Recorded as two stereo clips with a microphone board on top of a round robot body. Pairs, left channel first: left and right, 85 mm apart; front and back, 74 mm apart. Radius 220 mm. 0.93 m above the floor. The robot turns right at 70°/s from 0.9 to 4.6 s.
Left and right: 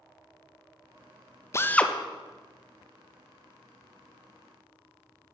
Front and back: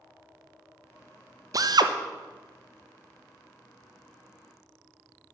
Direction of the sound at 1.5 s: 145° left.